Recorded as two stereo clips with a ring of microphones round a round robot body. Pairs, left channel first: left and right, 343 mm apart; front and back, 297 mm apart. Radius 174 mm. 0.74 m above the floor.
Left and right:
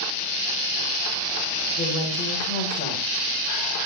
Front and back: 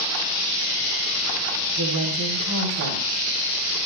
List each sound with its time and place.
1.8 s a woman speaking: 155° left, 4 m